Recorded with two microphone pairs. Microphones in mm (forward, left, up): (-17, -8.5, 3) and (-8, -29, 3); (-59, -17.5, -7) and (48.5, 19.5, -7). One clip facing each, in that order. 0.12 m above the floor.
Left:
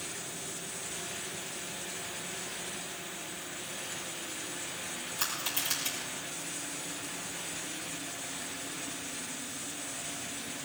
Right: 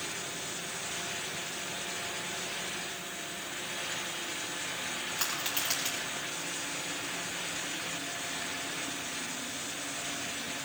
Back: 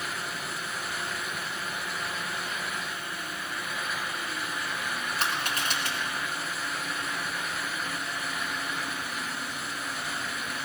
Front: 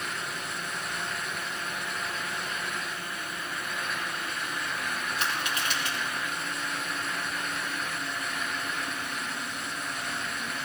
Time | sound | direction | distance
5.2 | crushing | 115° right | 6.5 m